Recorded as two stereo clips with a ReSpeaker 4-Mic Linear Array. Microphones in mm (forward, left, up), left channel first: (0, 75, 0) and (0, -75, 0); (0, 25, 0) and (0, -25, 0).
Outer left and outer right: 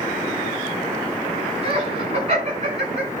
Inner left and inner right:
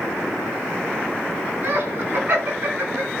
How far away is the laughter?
About 4 m.